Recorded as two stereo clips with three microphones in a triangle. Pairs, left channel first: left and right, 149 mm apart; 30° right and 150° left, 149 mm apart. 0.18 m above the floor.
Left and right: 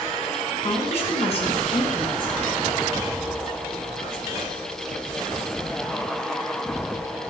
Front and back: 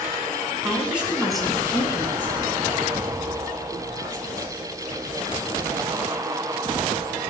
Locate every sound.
0.6 s a woman speaking: 80° left, 1.8 m; by 2.5 s 40° left, 2.5 m